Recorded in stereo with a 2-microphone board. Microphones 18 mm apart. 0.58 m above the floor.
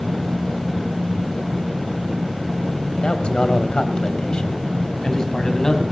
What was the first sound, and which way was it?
A man speaking, 65° left (ahead or behind).